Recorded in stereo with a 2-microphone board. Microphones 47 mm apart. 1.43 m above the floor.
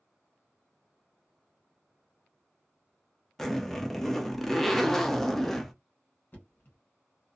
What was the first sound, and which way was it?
A zipper, 5° left (ahead or behind).